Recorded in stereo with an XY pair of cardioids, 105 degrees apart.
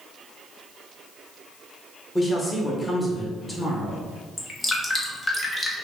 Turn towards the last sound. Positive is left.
turn(degrees=25)